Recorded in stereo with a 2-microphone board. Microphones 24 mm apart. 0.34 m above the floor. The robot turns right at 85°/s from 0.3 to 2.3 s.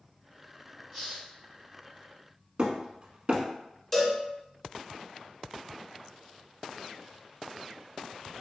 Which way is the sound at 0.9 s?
25° right.